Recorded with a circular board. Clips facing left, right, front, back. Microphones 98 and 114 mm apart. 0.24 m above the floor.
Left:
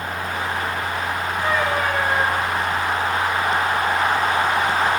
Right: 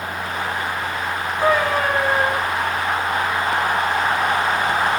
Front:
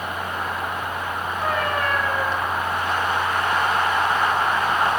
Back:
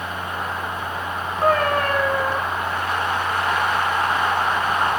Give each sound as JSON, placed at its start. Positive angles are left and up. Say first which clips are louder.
{"t": 1.4, "sound": "a cat meowing", "louder": "right 4 dB, back 6 dB", "azimuth_deg": -135, "distance_m": 3.5}